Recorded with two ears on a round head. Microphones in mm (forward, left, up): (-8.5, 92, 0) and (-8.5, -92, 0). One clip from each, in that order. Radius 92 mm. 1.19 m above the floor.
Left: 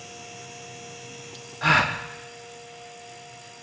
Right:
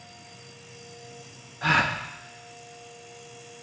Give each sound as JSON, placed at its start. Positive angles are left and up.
{"t": 1.6, "sound": "a gasp", "side_deg": 20, "distance_m": 0.6}